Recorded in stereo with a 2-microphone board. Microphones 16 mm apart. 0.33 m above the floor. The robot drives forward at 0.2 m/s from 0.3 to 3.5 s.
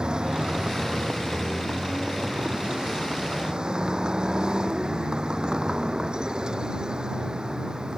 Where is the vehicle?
55° right (ahead or behind); by 8.0 s 50° right (ahead or behind).